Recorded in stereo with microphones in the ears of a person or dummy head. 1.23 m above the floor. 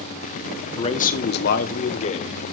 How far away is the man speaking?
About 0.8 m.